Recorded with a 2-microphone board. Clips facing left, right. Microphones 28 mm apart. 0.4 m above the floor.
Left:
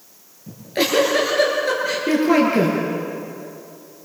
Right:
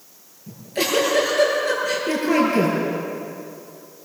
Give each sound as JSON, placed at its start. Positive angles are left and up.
{"t": 0.5, "sound": "a giggle", "side_deg": 25, "distance_m": 8.0}